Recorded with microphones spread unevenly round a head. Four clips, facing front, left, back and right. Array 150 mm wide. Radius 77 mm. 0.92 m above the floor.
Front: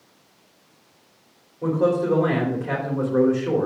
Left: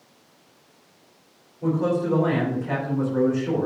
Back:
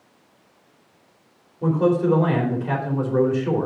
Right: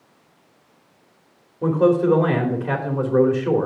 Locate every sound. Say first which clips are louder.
1.6 s a man speaking: right 6 dB, back 1 dB; 75° right, 2.5 m